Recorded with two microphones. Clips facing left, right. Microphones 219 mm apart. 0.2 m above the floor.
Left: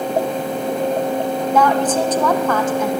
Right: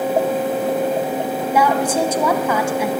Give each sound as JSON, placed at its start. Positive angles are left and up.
{"t": 1.5, "sound": "a woman speaking", "side_deg": -10, "distance_m": 1.2}